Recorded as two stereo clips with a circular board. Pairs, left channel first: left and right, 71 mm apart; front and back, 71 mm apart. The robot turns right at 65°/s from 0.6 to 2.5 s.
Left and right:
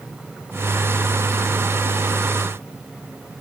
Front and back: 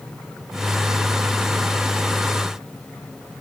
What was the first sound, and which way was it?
Only background noise.